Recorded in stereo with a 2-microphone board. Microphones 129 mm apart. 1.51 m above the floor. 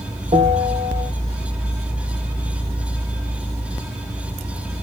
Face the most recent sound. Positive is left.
turn(degrees=-60)  # may be behind; listen again after turning